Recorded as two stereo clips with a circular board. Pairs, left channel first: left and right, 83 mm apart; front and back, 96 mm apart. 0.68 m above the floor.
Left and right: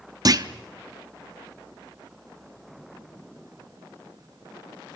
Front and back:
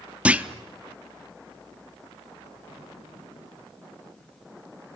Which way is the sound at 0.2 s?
105° right.